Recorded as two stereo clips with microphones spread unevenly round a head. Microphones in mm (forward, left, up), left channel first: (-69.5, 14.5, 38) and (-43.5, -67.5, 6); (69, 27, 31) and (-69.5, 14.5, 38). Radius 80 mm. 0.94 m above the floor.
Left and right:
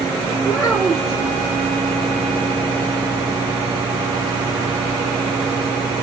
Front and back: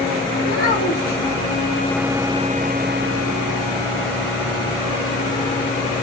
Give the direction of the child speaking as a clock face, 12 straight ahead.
12 o'clock.